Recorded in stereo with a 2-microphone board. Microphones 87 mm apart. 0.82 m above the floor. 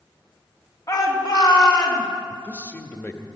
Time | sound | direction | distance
0.9 | a shout | 45° left (ahead or behind) | 2 m
2.3 | a man speaking | 20° left (ahead or behind) | 1.1 m